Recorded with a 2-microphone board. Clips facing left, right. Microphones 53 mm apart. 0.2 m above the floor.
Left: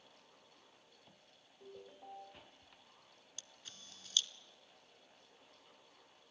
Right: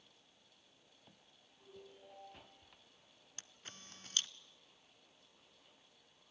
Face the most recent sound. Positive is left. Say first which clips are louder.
# right 2 dB
turn(degrees=-40)  # may be behind; listen again after turning